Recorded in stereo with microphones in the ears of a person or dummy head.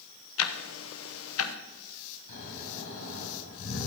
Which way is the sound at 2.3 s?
70° left (ahead or behind).